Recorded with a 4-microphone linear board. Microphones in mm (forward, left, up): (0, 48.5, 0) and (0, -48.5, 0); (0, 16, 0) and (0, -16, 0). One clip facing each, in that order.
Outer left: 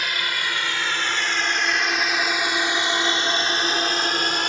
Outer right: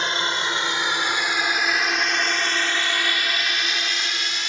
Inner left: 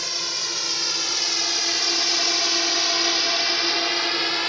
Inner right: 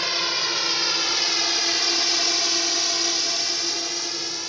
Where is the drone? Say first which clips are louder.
Outer right 3 dB, inner right 4 dB; 30° right (ahead or behind); by 4.5 s 50° left (ahead or behind).